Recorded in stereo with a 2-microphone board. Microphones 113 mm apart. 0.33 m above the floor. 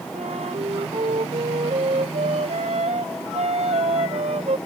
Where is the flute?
70° right (ahead or behind).